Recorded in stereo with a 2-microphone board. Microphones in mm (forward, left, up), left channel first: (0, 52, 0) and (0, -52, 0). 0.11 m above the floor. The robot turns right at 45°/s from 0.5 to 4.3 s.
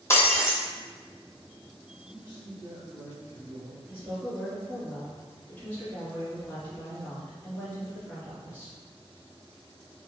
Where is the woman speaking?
10° left (ahead or behind), 1.7 m; by 8.8 s 15° left (ahead or behind), 1.7 m.